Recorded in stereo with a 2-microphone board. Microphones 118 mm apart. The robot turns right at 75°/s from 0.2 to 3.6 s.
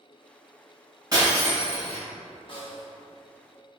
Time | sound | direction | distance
1.1 | breaking glass | 30° right | 1.7 m
2.5 | a snare drum | 100° left | 1.0 m